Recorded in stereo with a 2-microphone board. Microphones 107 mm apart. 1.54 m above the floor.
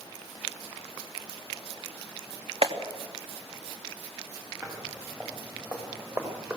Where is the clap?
60° right (ahead or behind), 2.5 m.